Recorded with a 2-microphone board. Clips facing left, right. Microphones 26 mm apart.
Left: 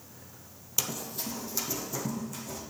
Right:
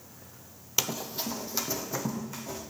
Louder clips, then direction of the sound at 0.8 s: Right 3 dB; 30° right (ahead or behind).